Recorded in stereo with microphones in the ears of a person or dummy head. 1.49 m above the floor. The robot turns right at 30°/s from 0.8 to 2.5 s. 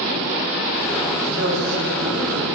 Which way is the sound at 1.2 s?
75° right.